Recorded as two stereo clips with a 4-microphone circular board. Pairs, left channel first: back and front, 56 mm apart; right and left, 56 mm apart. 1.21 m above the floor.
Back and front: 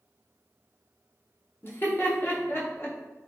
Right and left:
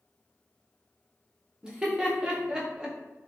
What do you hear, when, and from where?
1.6 s laughter: 160° left, 0.8 m